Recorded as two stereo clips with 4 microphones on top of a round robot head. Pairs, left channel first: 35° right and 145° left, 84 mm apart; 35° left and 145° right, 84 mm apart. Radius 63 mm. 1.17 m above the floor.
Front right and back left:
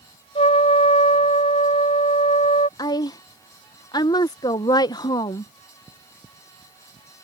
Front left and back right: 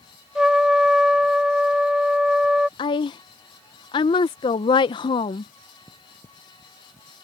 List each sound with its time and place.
0.3 s a trumpet: 60° right
2.8 s a woman speaking: 5° left